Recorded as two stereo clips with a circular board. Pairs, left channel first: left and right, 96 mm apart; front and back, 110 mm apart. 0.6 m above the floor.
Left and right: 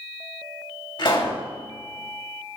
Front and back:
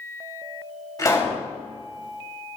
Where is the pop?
55° left, 3 m.